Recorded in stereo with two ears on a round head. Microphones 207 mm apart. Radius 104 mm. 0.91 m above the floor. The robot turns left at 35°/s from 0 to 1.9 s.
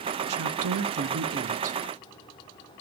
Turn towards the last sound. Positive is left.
turn(degrees=-150)